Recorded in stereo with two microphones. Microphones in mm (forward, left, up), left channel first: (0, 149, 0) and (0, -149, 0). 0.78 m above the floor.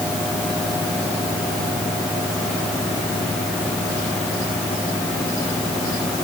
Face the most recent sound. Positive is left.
No sound to turn to.